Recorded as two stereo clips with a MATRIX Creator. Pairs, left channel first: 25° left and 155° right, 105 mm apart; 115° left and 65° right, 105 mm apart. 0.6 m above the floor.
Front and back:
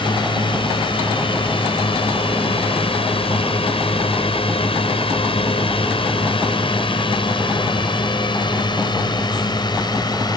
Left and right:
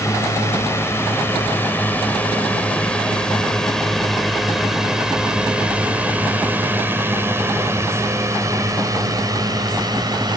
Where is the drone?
55° left; by 10.4 s 25° right.